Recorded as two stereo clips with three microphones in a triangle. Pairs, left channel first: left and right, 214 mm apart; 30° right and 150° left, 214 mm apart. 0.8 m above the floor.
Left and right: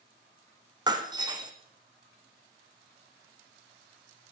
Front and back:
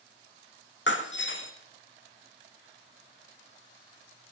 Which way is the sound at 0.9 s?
20° right.